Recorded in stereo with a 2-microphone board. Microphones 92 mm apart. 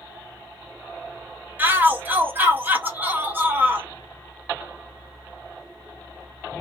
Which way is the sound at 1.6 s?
20° right (ahead or behind).